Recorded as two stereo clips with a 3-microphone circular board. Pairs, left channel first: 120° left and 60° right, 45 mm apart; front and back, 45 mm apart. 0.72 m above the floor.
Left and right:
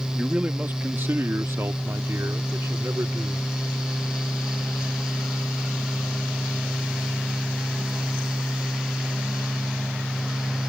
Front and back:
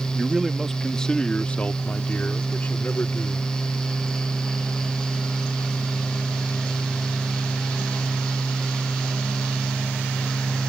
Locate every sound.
0.1 s a man speaking: 115° right; by 3.5 s 45° right